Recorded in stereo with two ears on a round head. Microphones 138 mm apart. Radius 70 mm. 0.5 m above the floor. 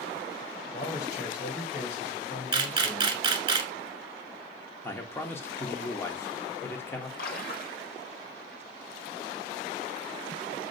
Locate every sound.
0.7 s a man speaking: 45° left (ahead or behind), 1.8 m
2.5 s a camera shutter: 25° right (ahead or behind), 1.1 m
4.8 s a man speaking: 15° left (ahead or behind), 0.7 m
7.2 s a splash: 65° left (ahead or behind), 0.8 m